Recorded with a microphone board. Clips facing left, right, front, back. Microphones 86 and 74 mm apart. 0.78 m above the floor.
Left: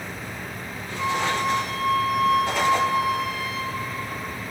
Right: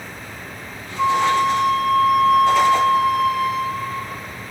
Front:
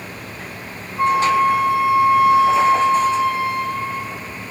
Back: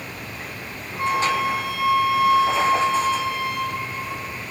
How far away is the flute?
About 2.5 m.